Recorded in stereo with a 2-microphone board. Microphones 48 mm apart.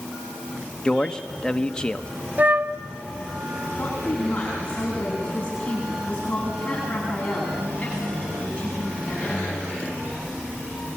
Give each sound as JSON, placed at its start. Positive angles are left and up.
{"t": 0.8, "sound": "a man speaking", "side_deg": 15, "distance_m": 1.3}
{"t": 2.4, "sound": "a flute", "side_deg": -35, "distance_m": 0.6}
{"t": 3.8, "sound": "a woman speaking", "side_deg": 20, "distance_m": 9.0}